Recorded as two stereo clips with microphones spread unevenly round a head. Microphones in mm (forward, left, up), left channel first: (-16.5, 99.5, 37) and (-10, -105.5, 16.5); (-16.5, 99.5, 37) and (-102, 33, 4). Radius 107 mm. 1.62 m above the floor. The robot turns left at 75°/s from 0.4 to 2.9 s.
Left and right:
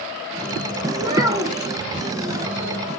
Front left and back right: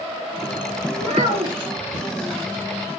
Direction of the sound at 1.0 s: 135° right.